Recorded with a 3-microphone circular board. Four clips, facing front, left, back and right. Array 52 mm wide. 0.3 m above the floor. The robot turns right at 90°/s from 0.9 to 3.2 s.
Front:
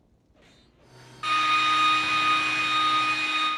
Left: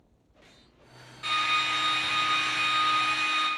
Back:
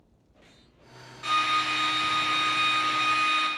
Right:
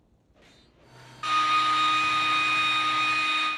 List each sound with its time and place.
1.2 s a drill: 55° right, 3.5 m; by 3.5 s 125° left, 3.5 m